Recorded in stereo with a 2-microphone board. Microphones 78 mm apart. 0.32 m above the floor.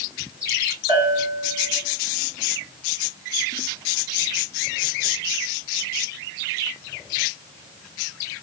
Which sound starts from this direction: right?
A bell, at 0.9 s.